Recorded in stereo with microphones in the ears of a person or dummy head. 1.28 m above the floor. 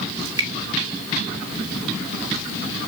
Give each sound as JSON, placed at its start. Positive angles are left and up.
{"t": 0.2, "sound": "dripping", "side_deg": -25, "distance_m": 1.8}